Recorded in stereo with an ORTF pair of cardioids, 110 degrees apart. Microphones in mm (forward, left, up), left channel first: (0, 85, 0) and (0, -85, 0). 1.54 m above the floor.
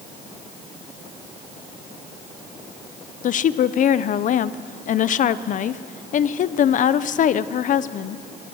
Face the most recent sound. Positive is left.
turn(degrees=50)